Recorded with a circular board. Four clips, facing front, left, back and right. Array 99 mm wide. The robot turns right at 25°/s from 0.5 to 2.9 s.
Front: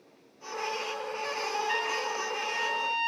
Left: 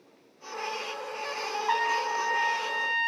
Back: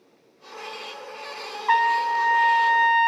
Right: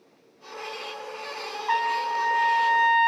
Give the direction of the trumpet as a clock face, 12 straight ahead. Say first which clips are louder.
Right 3 dB, back 11 dB; 6 o'clock.